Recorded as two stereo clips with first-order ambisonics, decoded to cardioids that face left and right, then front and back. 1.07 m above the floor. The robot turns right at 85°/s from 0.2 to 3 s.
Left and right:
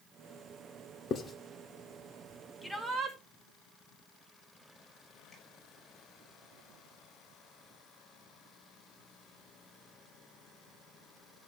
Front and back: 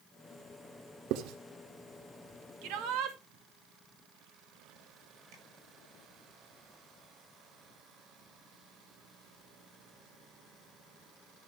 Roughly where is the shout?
Behind.